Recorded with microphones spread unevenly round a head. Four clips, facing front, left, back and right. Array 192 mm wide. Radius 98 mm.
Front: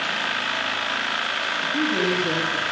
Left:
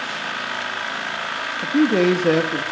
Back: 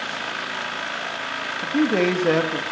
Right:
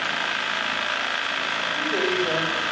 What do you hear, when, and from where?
1.6 s a man speaking: 115° left, 4 m; by 2.6 s 110° left, 3.5 m